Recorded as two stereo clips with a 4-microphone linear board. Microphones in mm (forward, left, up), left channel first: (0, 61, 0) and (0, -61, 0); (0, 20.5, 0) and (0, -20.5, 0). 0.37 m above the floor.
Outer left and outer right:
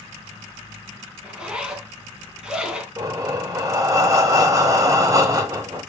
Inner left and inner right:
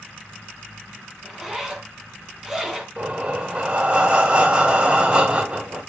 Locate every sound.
1.2 s a zipper: 5° right (ahead or behind), 1.6 m
3.0 s breathing: 30° right (ahead or behind), 1.1 m